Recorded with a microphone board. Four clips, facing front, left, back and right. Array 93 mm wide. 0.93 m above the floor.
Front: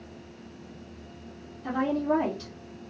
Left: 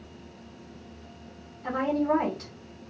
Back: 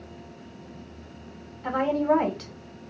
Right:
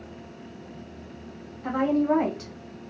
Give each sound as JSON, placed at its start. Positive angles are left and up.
{"t": 1.6, "sound": "a woman speaking", "azimuth_deg": -170, "distance_m": 1.3}